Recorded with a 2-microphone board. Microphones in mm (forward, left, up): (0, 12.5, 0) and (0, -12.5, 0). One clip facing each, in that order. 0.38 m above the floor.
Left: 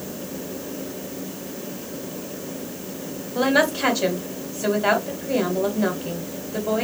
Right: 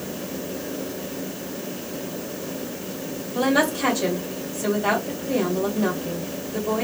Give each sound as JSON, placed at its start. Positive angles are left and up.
{"t": 3.4, "sound": "a woman speaking", "side_deg": 25, "distance_m": 2.0}